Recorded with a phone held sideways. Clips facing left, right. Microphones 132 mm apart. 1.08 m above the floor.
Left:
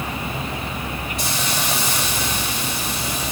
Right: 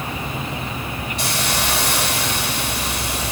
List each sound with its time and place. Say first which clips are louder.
1.2 s a hiss: right 3 dB; 70° right (ahead or behind), 3.5 m